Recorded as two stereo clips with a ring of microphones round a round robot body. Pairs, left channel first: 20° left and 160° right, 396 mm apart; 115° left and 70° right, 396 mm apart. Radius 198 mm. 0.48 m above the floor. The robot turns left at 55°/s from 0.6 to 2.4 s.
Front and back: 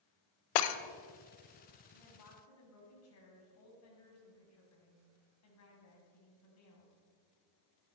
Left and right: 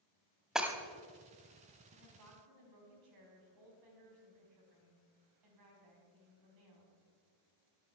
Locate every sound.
0.6 s breaking glass: 20° left, 0.8 m; by 0.8 s 10° left, 0.8 m
1.9 s a woman speaking: straight ahead, 3.5 m; by 6.9 s 30° right, 3.5 m